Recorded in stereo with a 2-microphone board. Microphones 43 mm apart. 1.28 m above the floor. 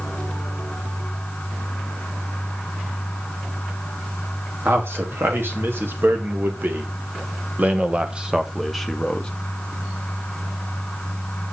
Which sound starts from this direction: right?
A man speaking, at 4.7 s.